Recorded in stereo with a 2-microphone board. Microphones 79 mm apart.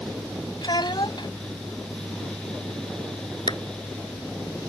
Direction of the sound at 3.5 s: 70° left (ahead or behind).